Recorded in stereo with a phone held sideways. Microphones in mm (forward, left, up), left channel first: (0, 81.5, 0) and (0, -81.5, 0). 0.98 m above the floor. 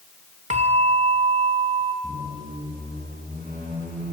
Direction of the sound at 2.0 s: 60° right (ahead or behind).